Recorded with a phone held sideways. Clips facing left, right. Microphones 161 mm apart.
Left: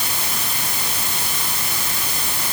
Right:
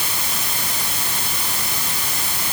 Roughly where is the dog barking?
No dog barking in this recording.